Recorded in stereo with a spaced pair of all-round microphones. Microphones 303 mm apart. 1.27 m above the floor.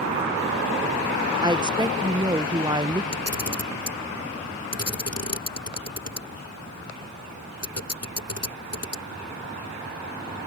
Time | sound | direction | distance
1.4 | a woman speaking | 15° right (ahead or behind) | ?
3.1 | a camera shutter | 55° left (ahead or behind) | ?